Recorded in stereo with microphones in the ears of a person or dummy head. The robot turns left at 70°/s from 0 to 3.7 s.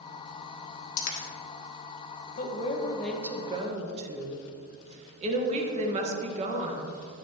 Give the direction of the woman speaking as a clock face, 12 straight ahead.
10 o'clock.